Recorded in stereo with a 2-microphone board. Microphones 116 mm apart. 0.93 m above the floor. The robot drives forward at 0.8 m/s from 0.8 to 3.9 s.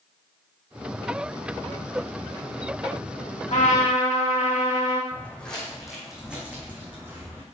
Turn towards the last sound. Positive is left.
turn(degrees=-20)  # may be behind; listen again after turning